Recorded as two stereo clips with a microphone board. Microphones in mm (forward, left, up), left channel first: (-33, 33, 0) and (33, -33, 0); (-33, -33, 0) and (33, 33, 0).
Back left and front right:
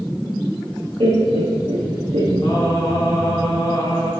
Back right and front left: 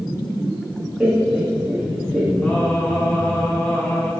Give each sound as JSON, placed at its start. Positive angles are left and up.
{"t": 1.0, "sound": "laughter", "azimuth_deg": -25, "distance_m": 0.9}
{"t": 2.4, "sound": "singing", "azimuth_deg": 150, "distance_m": 1.4}